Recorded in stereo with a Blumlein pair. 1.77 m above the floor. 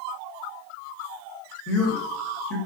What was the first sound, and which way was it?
A man speaking, 30° left.